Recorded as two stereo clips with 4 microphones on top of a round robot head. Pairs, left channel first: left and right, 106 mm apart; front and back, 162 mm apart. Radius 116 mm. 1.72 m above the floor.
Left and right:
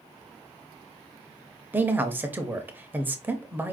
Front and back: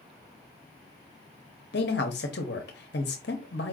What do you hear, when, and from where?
1.7 s a man speaking: 20° right, 0.6 m